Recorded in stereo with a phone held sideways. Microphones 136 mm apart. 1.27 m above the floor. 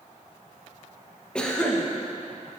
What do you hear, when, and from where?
1.4 s a cough: 5° left (ahead or behind), 1.3 m